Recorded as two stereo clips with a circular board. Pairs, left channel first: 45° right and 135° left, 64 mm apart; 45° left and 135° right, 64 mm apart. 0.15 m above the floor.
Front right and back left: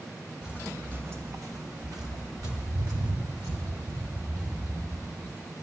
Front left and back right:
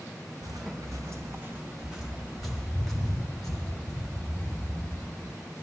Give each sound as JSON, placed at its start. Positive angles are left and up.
{"t": 0.4, "sound": "footsteps", "azimuth_deg": -145, "distance_m": 1.8}